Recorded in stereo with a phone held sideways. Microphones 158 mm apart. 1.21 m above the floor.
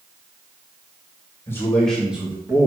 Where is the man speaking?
15° left (ahead or behind), 2 m; by 2.7 s 30° right (ahead or behind), 1.6 m.